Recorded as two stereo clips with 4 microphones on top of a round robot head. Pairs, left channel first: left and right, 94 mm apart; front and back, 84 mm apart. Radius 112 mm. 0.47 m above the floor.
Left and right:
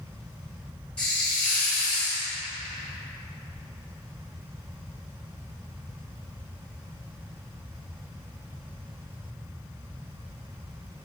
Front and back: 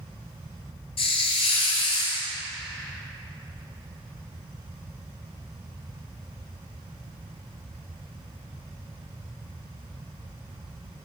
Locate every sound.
1.0 s a hiss: 10° left, 1.2 m